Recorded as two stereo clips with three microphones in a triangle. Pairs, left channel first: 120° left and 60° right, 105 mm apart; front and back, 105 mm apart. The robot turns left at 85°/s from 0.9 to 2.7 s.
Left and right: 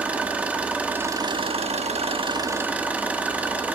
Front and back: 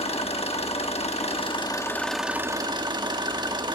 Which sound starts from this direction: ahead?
An engine running, at 0.0 s.